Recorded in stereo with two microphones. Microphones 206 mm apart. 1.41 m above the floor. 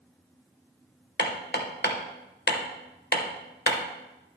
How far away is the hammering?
About 1.0 m.